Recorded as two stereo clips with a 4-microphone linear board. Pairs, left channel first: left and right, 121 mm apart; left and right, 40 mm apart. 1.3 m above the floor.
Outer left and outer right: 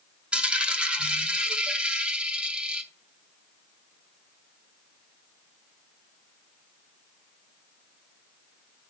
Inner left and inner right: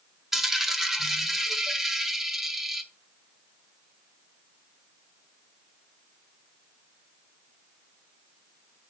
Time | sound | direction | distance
0.3 | a dropped coin | 10° right (ahead or behind) | 0.8 m